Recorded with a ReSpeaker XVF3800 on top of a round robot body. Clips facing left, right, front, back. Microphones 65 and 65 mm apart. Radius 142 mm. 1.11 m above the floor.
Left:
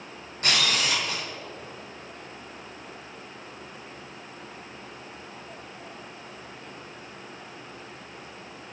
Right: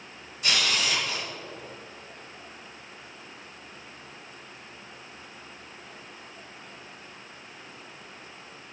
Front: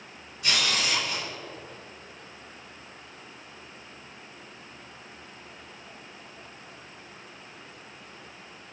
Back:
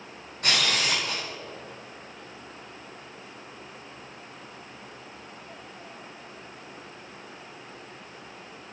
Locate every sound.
0.4 s a camera shutter: 135° left, 2.5 m